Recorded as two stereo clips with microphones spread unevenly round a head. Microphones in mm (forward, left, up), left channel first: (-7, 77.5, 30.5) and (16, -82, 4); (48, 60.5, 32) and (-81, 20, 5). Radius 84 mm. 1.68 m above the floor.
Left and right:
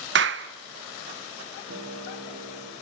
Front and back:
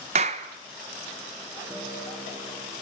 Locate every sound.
0.1 s a clap: 105° right, 1.5 m
1.7 s a guitar: 90° right, 6 m